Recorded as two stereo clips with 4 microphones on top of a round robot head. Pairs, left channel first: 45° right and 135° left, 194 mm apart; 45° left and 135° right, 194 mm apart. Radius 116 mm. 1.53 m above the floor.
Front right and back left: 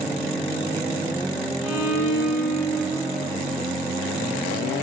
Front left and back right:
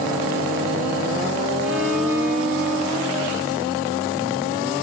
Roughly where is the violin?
Ahead right.